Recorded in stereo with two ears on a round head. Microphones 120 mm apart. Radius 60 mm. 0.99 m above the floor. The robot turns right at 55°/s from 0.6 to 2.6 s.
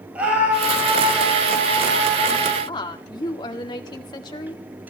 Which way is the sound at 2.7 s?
30° left (ahead or behind).